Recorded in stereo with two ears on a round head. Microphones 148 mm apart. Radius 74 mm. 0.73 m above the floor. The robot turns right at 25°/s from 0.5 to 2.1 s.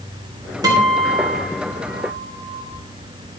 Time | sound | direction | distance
0.6 | a guitar | 155° right | 3 m